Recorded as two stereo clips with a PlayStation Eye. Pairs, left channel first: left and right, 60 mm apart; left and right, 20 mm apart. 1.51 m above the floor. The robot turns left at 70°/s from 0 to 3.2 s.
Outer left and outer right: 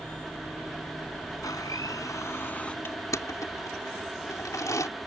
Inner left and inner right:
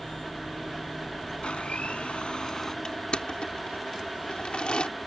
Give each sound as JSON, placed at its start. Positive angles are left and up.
{"t": 1.4, "sound": "a blender", "azimuth_deg": 105}
{"t": 2.9, "sound": "crushing", "side_deg": 45}